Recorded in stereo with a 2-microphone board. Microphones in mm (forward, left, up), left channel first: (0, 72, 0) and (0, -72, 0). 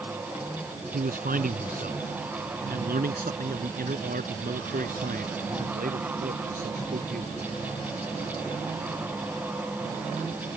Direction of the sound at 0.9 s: 75° right (ahead or behind).